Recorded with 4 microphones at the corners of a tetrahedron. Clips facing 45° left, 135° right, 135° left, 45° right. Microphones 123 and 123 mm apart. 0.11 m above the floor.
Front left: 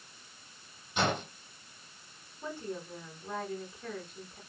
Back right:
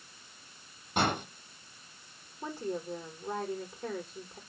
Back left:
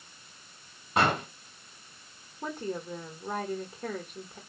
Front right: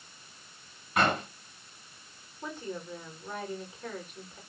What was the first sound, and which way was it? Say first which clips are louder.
An explosion: back right 1 dB, back left 1 dB; 170° right.